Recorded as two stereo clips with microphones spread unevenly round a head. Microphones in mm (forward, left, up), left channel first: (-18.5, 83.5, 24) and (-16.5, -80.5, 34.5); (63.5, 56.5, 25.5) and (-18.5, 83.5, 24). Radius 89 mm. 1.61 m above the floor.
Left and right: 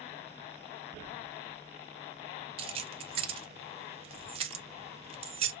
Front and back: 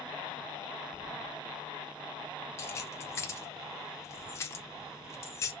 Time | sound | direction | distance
2.6 | keys jangling | 65° right | 0.5 m